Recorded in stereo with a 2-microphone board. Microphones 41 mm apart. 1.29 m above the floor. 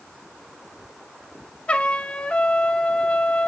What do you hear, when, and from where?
1.7 s a trumpet: 30° left (ahead or behind), 1.7 m